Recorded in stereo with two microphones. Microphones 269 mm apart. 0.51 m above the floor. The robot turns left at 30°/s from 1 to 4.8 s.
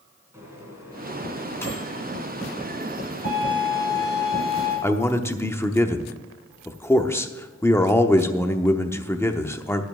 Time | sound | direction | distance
0.3 | a microwave | 10° right (ahead or behind) | 3.5 m
3.2 | a violin | 145° left | 6 m
4.8 | a man speaking | 10° left (ahead or behind) | 0.8 m